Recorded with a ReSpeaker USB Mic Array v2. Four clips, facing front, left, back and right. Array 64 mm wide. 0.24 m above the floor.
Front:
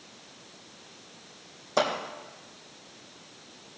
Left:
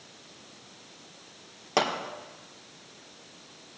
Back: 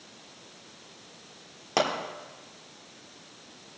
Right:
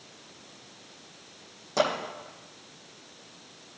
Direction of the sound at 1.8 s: 130° left.